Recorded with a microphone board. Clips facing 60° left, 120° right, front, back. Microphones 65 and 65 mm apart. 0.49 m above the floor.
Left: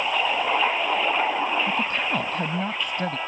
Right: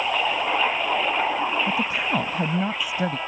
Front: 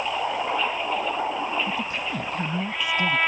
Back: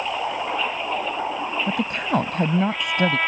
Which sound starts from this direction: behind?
A woman speaking, at 1.7 s.